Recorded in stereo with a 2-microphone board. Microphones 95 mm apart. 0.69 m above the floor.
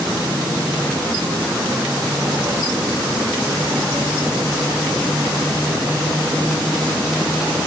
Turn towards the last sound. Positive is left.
No sound to turn to.